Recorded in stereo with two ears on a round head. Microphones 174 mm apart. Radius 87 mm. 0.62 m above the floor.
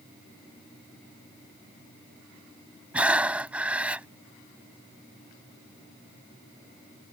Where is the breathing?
5° right (ahead or behind).